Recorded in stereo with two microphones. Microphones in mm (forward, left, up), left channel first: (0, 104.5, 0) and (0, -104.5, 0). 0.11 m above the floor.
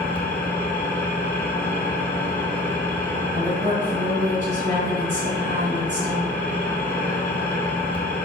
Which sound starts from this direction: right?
A woman speaking, at 3.3 s.